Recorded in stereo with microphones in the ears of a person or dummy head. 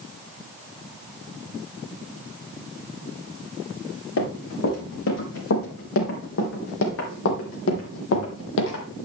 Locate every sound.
4.2 s running footsteps: 70° left (ahead or behind), 5 m; by 8.8 s 60° left (ahead or behind), 2.5 m